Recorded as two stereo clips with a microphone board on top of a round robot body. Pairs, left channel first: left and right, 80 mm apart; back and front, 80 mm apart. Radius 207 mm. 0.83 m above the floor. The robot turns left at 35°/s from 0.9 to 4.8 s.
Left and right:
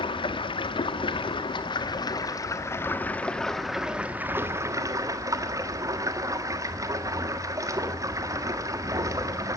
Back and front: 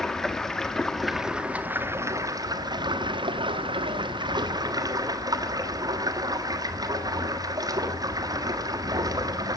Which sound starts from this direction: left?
Running water, at 0.0 s.